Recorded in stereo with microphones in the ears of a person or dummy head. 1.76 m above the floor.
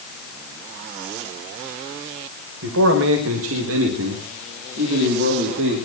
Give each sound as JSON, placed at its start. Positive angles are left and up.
{"t": 2.6, "sound": "a man speaking", "side_deg": -75, "distance_m": 3.0}